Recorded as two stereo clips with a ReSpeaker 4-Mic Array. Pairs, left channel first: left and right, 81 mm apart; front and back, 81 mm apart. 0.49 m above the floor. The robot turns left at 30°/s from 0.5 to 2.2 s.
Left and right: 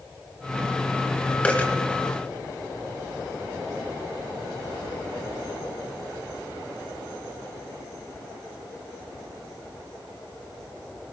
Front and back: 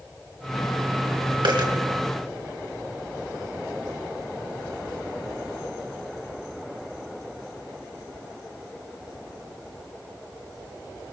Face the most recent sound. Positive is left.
turn(degrees=140)